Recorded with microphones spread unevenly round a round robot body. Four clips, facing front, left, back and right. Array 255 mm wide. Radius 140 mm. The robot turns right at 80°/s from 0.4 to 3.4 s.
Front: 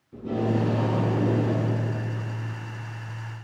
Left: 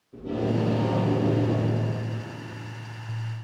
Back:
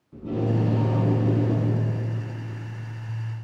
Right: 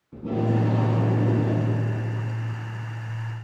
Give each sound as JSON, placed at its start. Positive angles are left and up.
{"t": 0.1, "sound": "tape being pulled", "azimuth_deg": -105, "distance_m": 5.5}